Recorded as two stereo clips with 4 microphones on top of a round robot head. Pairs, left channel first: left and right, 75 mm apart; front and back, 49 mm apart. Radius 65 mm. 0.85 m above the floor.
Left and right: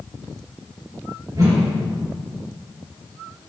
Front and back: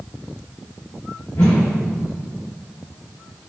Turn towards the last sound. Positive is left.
turn(degrees=-50)